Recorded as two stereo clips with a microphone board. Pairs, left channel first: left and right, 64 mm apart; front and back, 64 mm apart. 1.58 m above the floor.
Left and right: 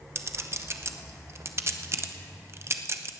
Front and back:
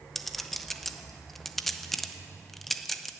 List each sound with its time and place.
0.1 s a clink: 85° right, 0.7 m